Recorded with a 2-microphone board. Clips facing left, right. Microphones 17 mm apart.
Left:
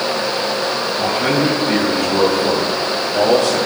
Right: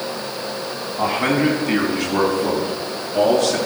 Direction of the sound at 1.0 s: 50° right (ahead or behind).